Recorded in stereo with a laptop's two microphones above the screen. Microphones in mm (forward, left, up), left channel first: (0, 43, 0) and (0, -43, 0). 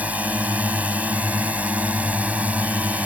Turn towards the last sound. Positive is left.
turn(degrees=-15)  # may be behind; listen again after turning